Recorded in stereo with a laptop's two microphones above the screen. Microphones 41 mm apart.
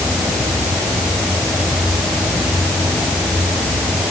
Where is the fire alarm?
No fire alarm in this recording.